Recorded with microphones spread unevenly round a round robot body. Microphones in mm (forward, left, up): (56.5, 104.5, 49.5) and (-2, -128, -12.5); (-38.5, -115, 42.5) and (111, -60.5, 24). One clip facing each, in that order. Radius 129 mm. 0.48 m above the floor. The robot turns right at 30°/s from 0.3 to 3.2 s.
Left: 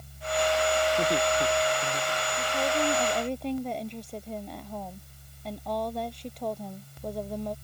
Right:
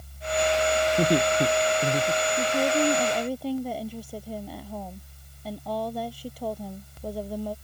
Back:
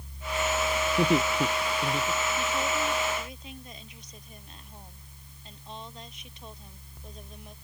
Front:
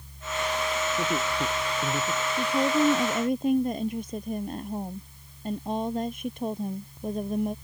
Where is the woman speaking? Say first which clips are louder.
Right 4 dB, front 6 dB; 45° right; by 7.5 s 20° right.